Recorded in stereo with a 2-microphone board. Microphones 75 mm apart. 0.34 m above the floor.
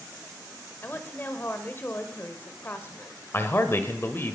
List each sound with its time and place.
0.8 s a woman speaking: 30° left (ahead or behind), 1.2 m
3.3 s a man speaking: 35° left (ahead or behind), 1.1 m